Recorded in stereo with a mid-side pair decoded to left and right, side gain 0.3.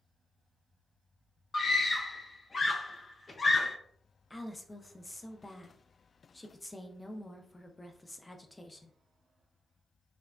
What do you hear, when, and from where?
1.5 s a scream: 40° left, 0.7 m
4.3 s a woman speaking: 20° left, 0.6 m